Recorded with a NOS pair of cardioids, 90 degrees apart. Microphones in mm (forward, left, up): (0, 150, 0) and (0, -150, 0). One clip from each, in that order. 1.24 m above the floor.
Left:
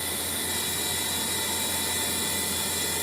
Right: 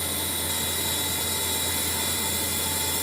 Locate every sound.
0.0 s a machine running: 20° right, 5 m